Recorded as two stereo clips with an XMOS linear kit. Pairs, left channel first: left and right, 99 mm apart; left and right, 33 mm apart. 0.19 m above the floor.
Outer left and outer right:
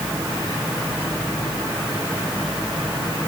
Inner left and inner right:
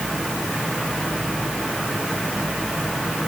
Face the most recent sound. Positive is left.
No sound to turn to.